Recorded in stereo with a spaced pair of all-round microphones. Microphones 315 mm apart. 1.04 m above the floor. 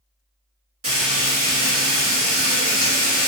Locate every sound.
0.8 s frying: 45° right (ahead or behind), 1.8 m